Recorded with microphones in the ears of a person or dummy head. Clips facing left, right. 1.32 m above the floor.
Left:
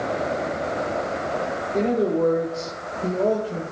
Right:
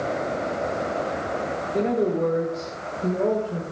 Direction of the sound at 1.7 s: 15° left (ahead or behind).